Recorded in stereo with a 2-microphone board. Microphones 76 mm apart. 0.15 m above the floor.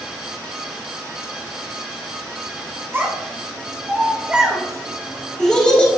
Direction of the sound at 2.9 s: 35° right (ahead or behind).